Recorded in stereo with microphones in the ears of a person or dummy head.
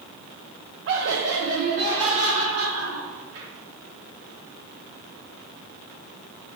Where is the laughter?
60° right (ahead or behind), 0.6 m; by 3.5 s 75° right (ahead or behind), 2 m.